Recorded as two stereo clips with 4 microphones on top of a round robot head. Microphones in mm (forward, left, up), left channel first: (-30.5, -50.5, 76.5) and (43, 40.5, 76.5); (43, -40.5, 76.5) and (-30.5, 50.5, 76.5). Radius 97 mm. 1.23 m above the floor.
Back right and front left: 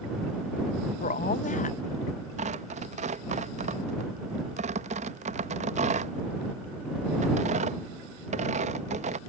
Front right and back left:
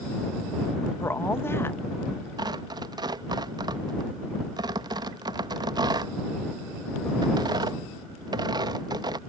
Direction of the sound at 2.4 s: 75° left.